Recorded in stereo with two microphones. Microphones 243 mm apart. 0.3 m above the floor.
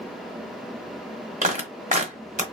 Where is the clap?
30° right (ahead or behind), 1.4 m.